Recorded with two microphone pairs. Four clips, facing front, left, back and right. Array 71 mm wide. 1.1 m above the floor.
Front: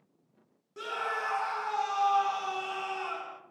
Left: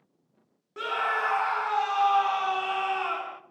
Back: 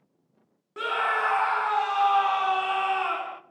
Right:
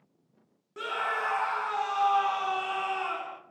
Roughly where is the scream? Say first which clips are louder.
Left 3 dB, back 8 dB; behind.